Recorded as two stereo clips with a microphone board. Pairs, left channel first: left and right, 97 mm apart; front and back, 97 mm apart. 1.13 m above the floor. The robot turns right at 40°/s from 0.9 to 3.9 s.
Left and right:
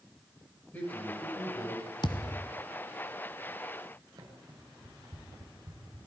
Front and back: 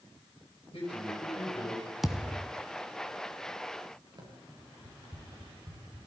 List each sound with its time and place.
0.7 s a man speaking: 20° left, 8.5 m; by 1.8 s 55° left, 8.5 m
2.0 s a thud: 95° left, 1.5 m; by 2.5 s 115° left, 1.5 m
4.2 s running footsteps: 135° right, 8.5 m